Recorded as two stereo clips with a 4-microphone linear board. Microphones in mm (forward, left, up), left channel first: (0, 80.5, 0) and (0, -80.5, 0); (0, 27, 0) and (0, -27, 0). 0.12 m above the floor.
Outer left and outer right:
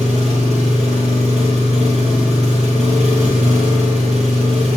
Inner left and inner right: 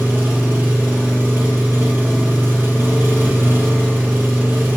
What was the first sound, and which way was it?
An engine running, 45° right (ahead or behind).